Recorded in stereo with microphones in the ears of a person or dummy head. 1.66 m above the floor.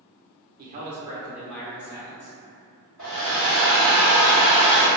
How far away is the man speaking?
About 0.7 m.